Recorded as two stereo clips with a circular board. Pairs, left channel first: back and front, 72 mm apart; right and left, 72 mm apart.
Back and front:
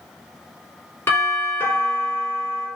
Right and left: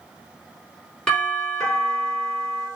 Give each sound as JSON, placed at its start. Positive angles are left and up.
{"t": 1.1, "sound": "a doorbell", "azimuth_deg": -165, "distance_m": 1.6}